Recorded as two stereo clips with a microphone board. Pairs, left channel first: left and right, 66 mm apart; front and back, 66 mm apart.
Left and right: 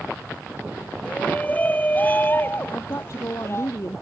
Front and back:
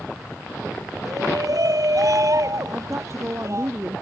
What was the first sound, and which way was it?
A shout, 160° left.